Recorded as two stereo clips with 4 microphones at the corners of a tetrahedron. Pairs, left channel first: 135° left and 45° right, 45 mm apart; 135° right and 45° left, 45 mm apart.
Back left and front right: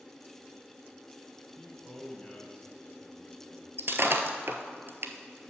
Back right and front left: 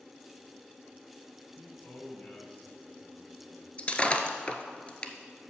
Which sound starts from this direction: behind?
A man speaking, at 1.6 s.